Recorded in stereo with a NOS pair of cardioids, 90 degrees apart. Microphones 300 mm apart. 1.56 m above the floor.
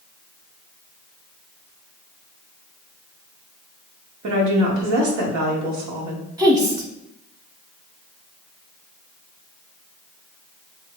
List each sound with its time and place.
4.2 s a woman speaking: 70° right, 1.3 m
6.4 s a woman speaking: 10° right, 1.2 m